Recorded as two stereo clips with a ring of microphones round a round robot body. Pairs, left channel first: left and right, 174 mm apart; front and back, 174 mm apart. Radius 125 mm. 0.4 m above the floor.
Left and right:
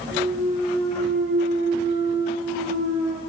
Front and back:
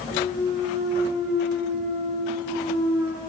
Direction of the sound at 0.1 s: 55° right.